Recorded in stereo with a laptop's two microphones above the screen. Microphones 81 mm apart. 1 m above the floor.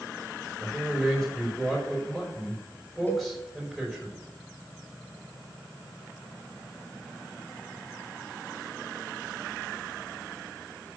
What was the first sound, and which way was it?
A man speaking, 5° left (ahead or behind).